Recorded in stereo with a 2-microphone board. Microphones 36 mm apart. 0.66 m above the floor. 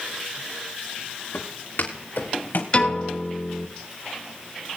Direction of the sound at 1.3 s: 75° left (ahead or behind).